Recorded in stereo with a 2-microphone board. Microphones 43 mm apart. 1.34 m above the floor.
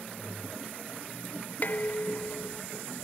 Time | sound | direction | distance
1.6 | dishes clattering | 45° left (ahead or behind) | ?